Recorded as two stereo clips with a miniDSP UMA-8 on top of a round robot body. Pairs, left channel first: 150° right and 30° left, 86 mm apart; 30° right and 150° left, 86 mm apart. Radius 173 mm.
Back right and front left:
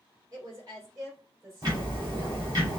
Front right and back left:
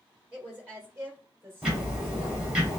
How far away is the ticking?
About 2.5 m.